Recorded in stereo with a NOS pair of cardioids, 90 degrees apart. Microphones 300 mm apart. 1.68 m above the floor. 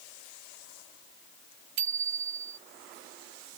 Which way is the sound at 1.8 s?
65° right.